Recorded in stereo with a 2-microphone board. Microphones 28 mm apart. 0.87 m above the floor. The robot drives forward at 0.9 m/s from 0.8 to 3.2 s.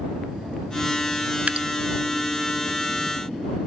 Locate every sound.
1.5 s dripping: 55° right (ahead or behind), 0.5 m; by 1.7 s 40° right (ahead or behind), 0.7 m